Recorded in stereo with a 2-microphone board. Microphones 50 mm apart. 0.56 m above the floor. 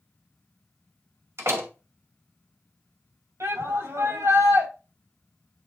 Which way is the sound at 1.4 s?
65° right (ahead or behind).